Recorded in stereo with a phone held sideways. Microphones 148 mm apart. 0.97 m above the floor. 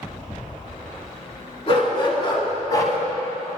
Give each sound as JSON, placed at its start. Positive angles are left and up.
{"t": 1.7, "sound": "a dog barking", "side_deg": 40, "distance_m": 2.5}